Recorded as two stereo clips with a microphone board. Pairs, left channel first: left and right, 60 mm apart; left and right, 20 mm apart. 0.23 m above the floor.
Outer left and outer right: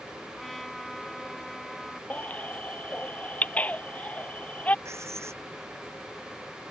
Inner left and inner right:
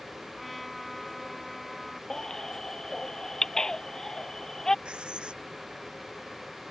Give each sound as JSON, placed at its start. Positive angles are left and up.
{"t": 0.4, "sound": "a trumpet", "side_deg": 5}
{"t": 2.1, "sound": "a baby crying", "side_deg": 25}
{"t": 4.8, "sound": "writing", "side_deg": -50}